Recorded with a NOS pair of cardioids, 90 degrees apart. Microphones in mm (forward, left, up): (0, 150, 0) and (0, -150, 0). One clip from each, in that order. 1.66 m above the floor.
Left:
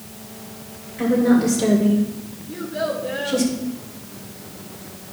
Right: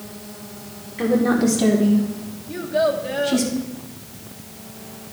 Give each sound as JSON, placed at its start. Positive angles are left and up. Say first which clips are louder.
{"t": 1.0, "sound": "a woman speaking", "louder": "left 1 dB", "azimuth_deg": -35, "distance_m": 4.5}
{"t": 2.5, "sound": "a child speaking", "louder": "right 5 dB", "azimuth_deg": -60, "distance_m": 2.5}